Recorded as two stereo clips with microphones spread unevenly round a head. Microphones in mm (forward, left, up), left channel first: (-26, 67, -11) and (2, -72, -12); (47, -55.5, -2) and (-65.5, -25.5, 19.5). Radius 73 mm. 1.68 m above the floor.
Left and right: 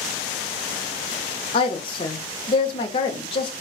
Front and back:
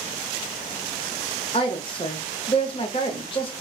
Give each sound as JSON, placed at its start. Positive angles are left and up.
{"t": 1.5, "sound": "a woman speaking", "azimuth_deg": 45, "distance_m": 0.6}